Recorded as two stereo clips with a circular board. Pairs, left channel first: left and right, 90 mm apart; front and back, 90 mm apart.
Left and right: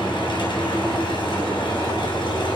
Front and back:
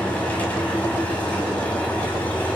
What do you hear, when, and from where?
0.0 s an engine running: 75° left, 7.5 m